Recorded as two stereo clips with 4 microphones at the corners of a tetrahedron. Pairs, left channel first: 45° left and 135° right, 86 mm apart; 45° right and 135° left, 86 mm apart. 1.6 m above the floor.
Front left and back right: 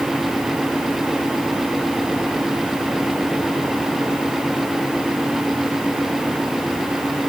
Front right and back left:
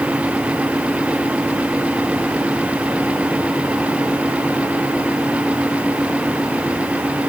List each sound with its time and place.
Only background noise.